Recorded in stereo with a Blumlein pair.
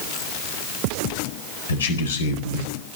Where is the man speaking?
70° left, 4 m.